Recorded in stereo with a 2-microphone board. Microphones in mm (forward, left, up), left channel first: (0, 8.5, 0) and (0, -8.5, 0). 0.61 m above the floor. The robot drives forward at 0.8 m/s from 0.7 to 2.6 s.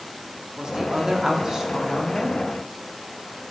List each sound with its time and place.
0.6 s a woman speaking: 40° right (ahead or behind), 1.3 m; by 2.4 s 30° right (ahead or behind), 1.8 m